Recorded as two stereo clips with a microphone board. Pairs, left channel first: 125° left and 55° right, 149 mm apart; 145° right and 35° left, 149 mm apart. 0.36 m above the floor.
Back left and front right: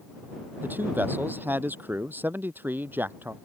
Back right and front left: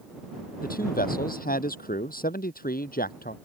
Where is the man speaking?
135° right.